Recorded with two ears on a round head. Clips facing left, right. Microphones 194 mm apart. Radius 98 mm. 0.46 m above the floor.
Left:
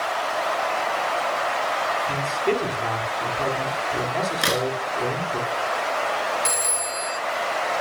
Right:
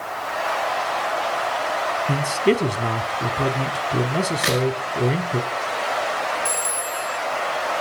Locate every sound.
2.1 s a man speaking: 35° right (ahead or behind), 1.6 m
4.4 s a crack: 30° left (ahead or behind), 7.5 m
6.5 s a phone ringing: 65° left (ahead or behind), 2.5 m